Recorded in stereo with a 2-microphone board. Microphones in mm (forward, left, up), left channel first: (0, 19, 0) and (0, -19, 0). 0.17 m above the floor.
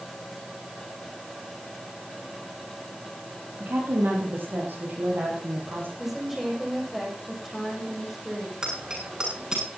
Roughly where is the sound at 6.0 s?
Centre.